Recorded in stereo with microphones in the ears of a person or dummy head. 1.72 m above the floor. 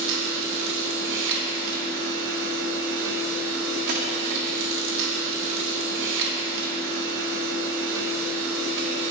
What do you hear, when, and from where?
0.0 s a machine running: 70° right (ahead or behind), 2.5 m
3.9 s a dropped coin: 45° right (ahead or behind), 1.9 m